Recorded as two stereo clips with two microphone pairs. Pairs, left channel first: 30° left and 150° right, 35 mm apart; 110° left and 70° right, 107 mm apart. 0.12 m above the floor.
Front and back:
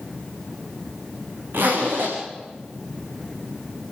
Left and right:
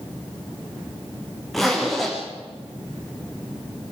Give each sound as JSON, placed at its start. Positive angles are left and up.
{"t": 1.5, "sound": "a zipper", "azimuth_deg": -160, "distance_m": 7.0}